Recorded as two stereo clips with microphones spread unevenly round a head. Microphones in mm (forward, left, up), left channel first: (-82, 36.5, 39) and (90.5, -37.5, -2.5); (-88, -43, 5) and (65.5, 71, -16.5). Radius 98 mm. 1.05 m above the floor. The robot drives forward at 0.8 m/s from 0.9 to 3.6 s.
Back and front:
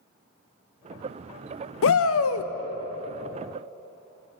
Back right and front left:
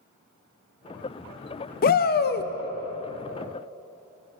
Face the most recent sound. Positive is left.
turn(degrees=180)